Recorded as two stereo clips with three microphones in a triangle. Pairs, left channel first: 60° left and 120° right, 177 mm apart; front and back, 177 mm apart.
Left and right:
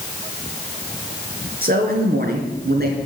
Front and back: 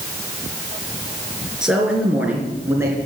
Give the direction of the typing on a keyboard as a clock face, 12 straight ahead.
I don't hear typing on a keyboard.